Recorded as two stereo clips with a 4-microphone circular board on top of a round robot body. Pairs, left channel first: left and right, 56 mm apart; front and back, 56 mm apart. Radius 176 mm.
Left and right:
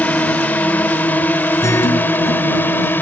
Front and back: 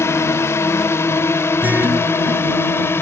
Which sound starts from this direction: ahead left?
A drone, at 0.0 s.